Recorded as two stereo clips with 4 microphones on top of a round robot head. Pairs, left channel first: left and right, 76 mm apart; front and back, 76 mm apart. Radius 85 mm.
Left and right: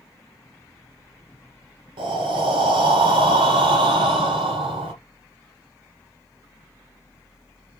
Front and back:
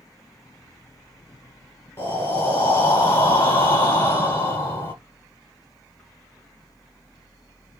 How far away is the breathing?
About 1.0 m.